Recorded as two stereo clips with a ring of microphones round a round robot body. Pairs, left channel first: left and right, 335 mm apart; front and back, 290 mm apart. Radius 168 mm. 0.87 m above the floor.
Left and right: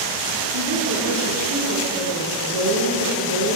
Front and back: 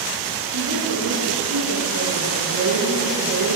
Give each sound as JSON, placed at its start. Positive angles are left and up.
{"t": 0.5, "sound": "a woman speaking", "azimuth_deg": -135, "distance_m": 9.5}